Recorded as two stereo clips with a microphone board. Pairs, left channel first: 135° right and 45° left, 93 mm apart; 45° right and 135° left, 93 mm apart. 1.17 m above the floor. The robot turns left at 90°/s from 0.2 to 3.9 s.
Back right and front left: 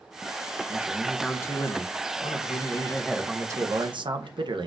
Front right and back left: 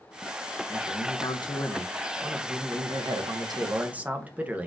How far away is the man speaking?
About 0.6 m.